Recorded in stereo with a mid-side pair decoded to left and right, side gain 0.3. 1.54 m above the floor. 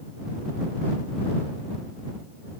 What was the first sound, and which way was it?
Only background noise.